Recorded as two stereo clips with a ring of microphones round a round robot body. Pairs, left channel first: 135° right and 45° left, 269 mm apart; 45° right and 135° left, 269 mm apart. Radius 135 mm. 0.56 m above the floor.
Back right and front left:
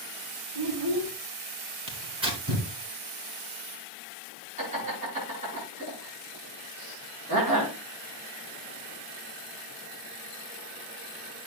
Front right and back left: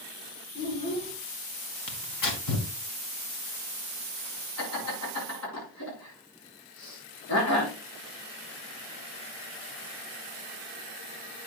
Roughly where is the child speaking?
Ahead.